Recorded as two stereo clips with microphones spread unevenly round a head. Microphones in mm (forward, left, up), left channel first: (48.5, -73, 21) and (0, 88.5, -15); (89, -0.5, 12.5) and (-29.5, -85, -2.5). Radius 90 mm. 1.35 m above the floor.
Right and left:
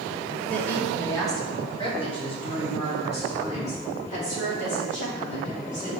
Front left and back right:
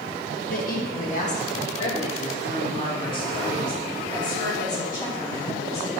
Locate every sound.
0.5 s a woman speaking: 15° left, 1.7 m; by 5.9 s 30° right, 6 m